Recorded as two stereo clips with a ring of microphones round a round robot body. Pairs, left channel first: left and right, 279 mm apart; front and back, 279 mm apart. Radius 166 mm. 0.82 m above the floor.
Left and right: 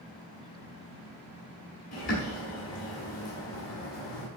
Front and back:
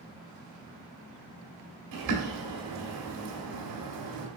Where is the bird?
155° left, 1.9 m.